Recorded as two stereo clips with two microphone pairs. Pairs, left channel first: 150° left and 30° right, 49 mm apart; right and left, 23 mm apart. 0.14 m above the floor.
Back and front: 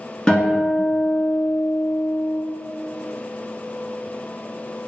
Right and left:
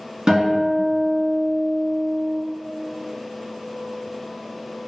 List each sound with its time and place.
0.3 s a guitar: 95° left, 1.6 m